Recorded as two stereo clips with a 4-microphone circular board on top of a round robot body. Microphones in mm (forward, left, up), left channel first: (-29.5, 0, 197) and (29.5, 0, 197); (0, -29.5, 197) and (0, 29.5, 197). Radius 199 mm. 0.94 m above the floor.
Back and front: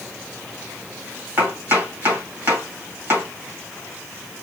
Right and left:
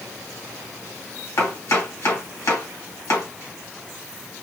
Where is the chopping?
50° right, 1.5 m.